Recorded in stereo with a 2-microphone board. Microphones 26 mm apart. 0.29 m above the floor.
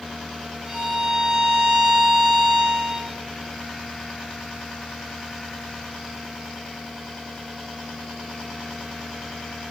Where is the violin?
35° right (ahead or behind), 1.1 m.